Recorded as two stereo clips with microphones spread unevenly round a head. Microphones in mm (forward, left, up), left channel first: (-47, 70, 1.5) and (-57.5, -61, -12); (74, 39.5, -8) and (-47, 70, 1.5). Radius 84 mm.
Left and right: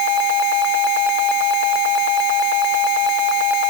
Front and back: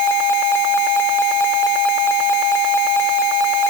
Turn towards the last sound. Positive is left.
No sound to turn to.